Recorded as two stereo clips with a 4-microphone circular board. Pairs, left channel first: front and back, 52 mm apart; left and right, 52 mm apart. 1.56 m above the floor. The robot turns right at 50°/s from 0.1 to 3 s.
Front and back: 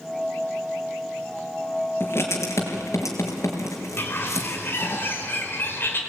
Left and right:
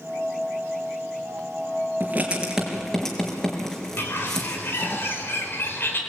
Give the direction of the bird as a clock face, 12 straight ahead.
10 o'clock.